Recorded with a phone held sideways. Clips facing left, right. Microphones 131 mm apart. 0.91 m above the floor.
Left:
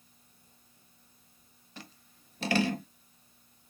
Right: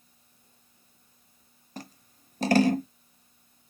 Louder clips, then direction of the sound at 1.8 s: Right 7 dB; 40° right (ahead or behind).